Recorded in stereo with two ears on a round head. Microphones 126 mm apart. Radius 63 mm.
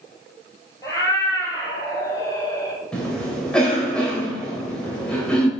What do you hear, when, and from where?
0.8 s a cat meowing: 25° left (ahead or behind), 3 m
2.9 s a cough: 5° left (ahead or behind), 2 m